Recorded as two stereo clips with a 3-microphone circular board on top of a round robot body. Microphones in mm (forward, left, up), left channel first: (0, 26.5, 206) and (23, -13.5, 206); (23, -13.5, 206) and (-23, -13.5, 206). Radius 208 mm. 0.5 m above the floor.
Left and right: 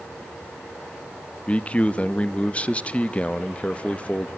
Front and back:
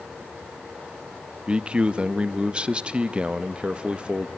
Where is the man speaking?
140° left, 0.8 m.